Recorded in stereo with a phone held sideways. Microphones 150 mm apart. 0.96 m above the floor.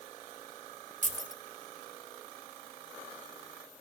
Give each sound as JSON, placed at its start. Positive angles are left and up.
{"t": 1.0, "sound": "keys jangling", "side_deg": -60, "distance_m": 1.2}